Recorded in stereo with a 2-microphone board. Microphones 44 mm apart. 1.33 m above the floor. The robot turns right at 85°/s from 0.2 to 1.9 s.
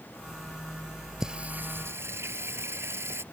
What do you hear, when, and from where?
1.2 s singing: 165° right; by 3.2 s 105° right